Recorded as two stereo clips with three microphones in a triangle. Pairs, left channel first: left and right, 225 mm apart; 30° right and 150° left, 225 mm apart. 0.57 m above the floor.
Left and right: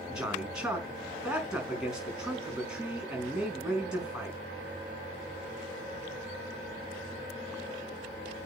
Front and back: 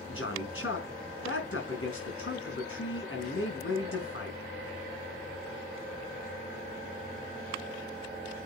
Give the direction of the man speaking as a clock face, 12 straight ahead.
12 o'clock.